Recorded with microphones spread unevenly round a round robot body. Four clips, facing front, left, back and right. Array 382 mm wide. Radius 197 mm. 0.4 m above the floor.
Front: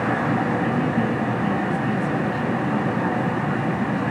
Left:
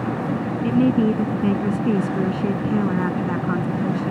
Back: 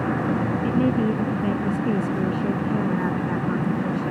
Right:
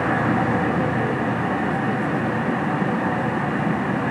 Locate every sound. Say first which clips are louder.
0.6 s a woman speaking: left 4 dB, back 1 dB; 100° left